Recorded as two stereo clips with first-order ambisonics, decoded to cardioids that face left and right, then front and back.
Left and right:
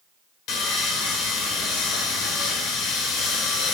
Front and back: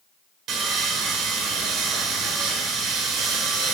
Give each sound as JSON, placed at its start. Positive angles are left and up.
{"t": 0.5, "sound": "sawing", "azimuth_deg": 130, "distance_m": 1.7}